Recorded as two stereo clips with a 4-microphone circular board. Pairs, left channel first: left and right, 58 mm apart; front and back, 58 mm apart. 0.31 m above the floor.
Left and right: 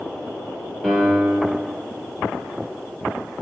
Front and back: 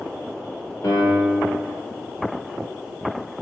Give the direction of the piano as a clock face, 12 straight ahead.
12 o'clock.